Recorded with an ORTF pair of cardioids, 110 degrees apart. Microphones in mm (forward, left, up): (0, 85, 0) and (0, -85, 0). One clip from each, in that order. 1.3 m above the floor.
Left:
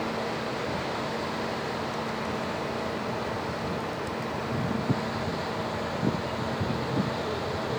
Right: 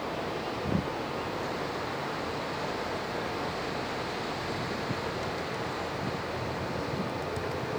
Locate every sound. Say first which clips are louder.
0.0 s a fan: left 3 dB; 35° left, 4.5 m